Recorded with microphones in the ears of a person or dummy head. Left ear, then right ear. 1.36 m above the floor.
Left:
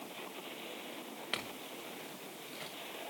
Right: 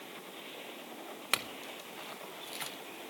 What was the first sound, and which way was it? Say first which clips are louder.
A clink: right 6 dB; 35° right (ahead or behind).